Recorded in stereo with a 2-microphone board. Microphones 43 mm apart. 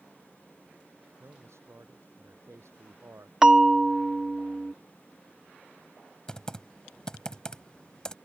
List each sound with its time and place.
1.2 s a man speaking: 80° right; by 3.3 s 85° right
3.4 s a bell: 10° right (ahead or behind)
6.3 s typing on a keyboard: 20° left (ahead or behind)